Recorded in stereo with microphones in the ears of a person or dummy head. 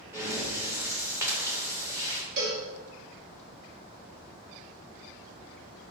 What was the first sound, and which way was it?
Breathing, 15° right (ahead or behind).